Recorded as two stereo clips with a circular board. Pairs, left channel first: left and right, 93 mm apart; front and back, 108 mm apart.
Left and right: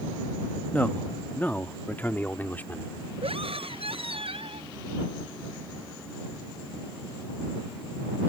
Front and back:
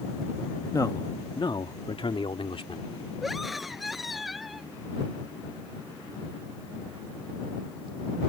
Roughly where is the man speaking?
Ahead left.